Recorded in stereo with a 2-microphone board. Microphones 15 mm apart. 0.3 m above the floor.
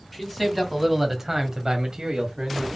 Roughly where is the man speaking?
Centre.